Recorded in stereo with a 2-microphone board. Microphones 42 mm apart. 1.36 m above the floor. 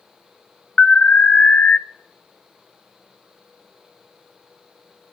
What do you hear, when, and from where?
0.8 s an alarm: 35° left (ahead or behind), 0.5 m